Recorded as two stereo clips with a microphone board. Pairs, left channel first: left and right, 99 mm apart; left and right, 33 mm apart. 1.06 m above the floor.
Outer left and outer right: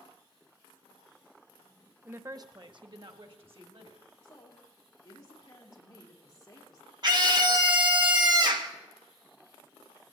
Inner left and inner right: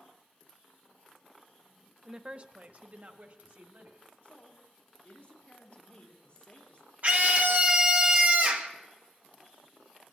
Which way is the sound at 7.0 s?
45° right (ahead or behind).